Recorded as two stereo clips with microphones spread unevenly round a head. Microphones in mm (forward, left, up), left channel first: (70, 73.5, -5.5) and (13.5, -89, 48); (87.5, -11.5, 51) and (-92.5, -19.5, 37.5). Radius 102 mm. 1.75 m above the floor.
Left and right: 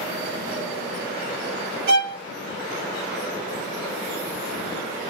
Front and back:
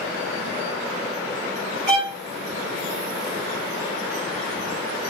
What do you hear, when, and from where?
1.9 s a violin: 110° right, 2.5 m